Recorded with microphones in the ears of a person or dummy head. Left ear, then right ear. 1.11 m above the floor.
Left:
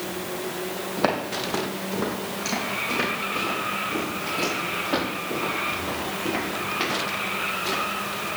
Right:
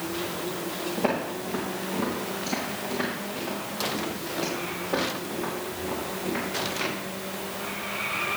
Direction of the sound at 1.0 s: 55° left (ahead or behind).